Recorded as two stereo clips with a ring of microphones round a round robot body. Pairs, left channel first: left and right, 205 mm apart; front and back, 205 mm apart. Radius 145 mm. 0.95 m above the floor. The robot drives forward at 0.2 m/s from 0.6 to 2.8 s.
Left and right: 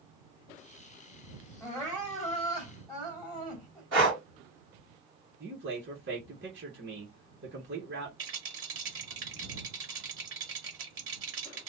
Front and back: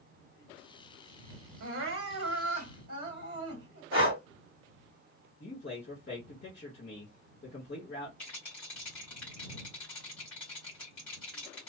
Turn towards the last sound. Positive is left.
turn(degrees=-85)